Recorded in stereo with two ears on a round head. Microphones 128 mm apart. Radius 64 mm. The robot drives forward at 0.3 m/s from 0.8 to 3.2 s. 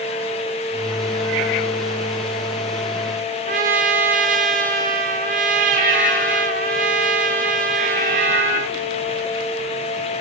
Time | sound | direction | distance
3.5 | a trumpet | 60° right (ahead or behind) | 1.5 m